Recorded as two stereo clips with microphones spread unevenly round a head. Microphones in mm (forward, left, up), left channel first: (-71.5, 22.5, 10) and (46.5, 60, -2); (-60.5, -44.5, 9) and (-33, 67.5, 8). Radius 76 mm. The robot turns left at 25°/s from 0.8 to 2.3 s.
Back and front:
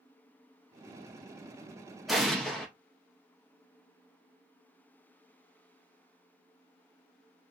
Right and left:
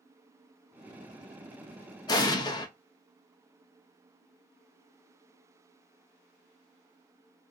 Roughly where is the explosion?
Right.